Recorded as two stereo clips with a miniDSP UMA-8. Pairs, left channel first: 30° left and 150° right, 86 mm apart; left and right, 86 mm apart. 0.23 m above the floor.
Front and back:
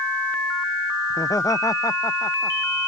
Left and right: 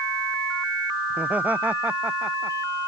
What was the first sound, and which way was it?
Laughter, 15° right.